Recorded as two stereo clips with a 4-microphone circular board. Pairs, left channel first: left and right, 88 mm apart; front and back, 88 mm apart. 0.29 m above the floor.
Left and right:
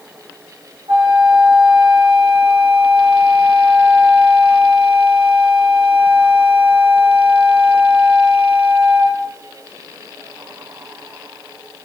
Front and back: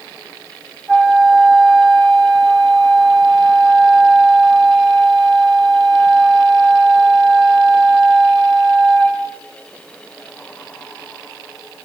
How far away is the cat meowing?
No cat meowing in this recording.